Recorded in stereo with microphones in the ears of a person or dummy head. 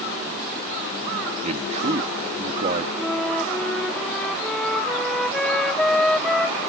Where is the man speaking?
40° right (ahead or behind).